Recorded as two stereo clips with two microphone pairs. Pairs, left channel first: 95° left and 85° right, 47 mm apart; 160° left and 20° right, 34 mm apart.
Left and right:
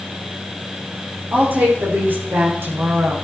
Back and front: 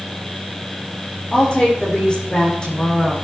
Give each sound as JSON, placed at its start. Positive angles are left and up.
{"t": 1.3, "sound": "a woman speaking", "azimuth_deg": -140, "distance_m": 8.5}